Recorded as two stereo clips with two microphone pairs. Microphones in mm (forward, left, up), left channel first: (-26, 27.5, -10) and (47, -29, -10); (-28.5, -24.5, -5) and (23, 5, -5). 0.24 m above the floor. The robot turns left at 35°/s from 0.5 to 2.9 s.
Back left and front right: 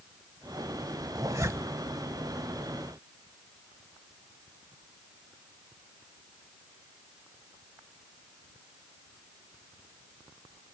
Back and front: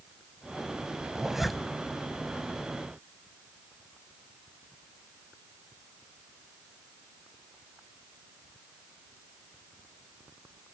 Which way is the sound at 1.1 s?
45° right.